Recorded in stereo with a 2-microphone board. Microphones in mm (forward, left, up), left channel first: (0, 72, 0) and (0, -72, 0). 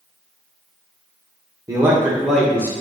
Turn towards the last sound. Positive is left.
turn(degrees=15)  # may be behind; listen again after turning